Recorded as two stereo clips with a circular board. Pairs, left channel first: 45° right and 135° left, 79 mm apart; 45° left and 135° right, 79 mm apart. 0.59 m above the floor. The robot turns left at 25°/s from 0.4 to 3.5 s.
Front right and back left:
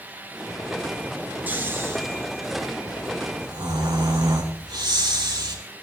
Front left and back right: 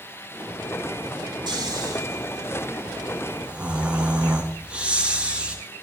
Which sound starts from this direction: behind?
Snoring, at 1.5 s.